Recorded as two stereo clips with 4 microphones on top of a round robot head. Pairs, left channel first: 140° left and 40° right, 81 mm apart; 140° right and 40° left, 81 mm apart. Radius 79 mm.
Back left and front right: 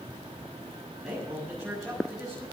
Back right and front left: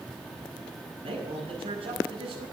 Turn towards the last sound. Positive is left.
turn(degrees=45)